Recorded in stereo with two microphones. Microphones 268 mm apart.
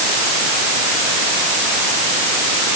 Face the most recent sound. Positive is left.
No sound to turn to.